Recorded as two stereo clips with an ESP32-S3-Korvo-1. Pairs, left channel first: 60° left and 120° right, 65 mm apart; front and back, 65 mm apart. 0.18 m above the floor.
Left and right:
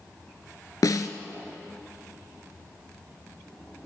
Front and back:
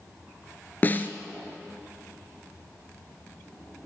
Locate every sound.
0.8 s a snare drum: 55° left, 0.9 m